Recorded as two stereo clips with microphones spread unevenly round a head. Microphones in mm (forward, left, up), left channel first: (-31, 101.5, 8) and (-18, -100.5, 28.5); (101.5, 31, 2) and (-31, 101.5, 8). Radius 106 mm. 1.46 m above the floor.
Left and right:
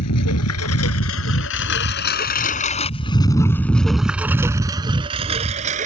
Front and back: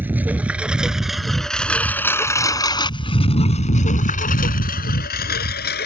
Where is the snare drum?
I don't hear a snare drum.